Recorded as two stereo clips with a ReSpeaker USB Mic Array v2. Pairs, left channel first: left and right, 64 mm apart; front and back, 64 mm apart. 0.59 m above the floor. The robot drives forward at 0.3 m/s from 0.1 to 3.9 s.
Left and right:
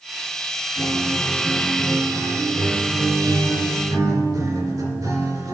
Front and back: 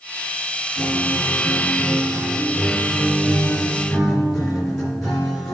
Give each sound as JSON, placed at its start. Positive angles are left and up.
{"t": 0.8, "sound": "a guitar", "azimuth_deg": -75, "distance_m": 3.5}